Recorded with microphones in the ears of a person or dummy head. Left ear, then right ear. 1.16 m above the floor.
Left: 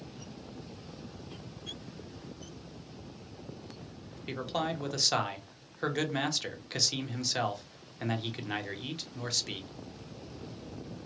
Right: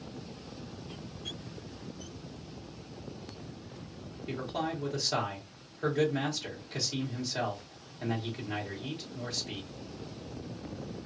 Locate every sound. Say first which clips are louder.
4.3 s a man speaking: left 1 dB; 55° left (ahead or behind), 0.8 m